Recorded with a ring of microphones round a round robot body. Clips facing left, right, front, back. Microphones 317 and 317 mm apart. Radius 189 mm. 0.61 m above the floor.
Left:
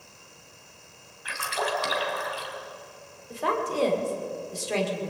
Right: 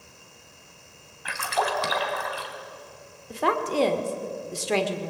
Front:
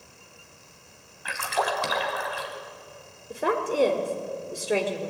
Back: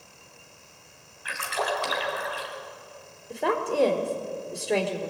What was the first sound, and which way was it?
A splash, 45° right.